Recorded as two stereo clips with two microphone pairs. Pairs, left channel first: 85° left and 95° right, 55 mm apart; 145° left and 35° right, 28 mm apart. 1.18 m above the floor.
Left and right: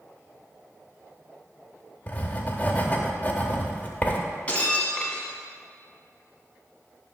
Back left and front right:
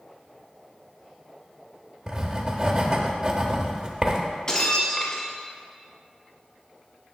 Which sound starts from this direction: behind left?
Breaking glass, at 4.5 s.